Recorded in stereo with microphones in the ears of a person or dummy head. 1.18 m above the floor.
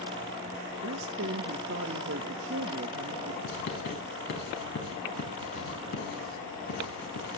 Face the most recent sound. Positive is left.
turn(degrees=70)  # may be behind; listen again after turning